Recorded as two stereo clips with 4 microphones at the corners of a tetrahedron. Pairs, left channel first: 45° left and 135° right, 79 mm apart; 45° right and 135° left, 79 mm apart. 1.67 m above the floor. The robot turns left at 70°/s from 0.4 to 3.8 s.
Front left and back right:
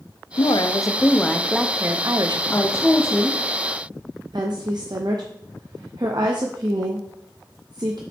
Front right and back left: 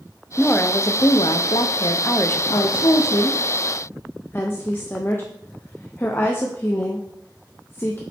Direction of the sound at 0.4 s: 30° left.